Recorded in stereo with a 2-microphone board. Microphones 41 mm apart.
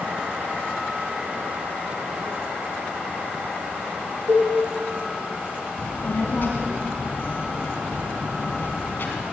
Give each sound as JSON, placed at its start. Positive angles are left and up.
{"t": 4.3, "sound": "a cowbell", "side_deg": -70, "distance_m": 6.5}
{"t": 5.8, "sound": "a child speaking", "side_deg": 55, "distance_m": 1.9}